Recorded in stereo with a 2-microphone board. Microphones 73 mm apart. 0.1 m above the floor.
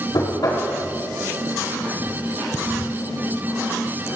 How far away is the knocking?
About 3.5 m.